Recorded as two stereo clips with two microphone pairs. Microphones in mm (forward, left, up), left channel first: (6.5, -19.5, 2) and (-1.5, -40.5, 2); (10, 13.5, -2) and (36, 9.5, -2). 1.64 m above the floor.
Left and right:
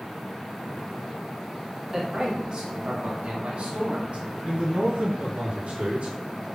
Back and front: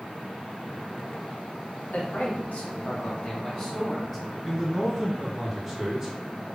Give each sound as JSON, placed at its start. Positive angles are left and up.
{"t": 1.9, "sound": "a man speaking", "azimuth_deg": 180, "distance_m": 1.2}
{"t": 4.5, "sound": "a man speaking", "azimuth_deg": -105, "distance_m": 1.5}